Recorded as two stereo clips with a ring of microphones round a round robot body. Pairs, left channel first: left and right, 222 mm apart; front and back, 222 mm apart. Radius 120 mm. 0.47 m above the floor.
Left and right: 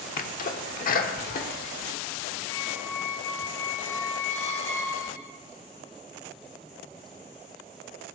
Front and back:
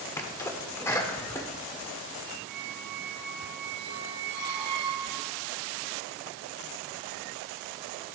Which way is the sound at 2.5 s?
170° left.